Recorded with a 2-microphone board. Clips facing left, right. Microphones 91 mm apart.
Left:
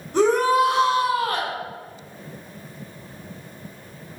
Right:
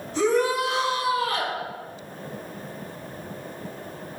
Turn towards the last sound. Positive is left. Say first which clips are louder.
# left 4 dB
turn(degrees=55)  # may be behind; listen again after turning